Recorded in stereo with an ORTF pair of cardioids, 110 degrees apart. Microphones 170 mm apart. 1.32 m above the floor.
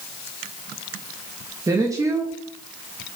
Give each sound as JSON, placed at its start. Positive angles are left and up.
{"t": 1.7, "sound": "a woman speaking", "azimuth_deg": -20, "distance_m": 1.5}